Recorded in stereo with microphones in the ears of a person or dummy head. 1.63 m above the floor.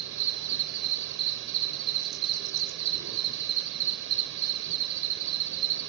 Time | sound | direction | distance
0.0 | an insect | 65° right (ahead or behind) | 1.0 m